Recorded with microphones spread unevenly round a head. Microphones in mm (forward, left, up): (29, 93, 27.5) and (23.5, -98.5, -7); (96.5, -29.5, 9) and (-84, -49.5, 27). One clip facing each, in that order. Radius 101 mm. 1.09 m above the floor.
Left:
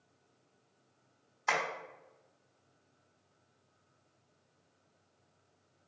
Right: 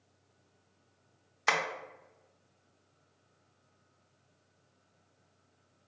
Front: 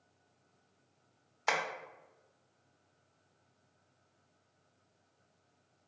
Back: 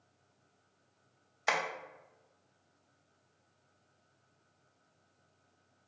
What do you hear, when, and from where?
1.5 s tapping: 100° right, 0.7 m